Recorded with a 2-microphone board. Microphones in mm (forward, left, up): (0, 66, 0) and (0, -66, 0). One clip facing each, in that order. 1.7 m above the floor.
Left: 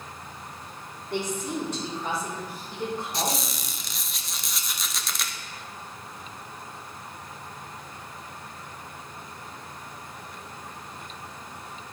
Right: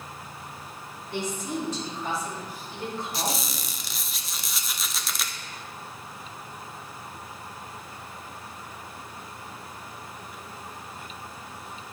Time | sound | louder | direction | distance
1.1 | a woman speaking | left 1 dB | 60° left (ahead or behind) | 3.5 m
3.1 | a squeak | left 1 dB | centre (ahead or behind) | 0.6 m